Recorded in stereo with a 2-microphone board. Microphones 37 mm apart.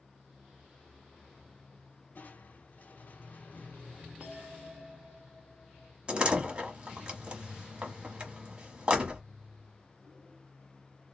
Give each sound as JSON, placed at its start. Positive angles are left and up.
{"t": 2.1, "sound": "crushing", "side_deg": 50, "distance_m": 0.9}
{"t": 4.2, "sound": "a bell", "side_deg": -30, "distance_m": 1.0}
{"t": 6.1, "sound": "a door slam", "side_deg": -25, "distance_m": 1.2}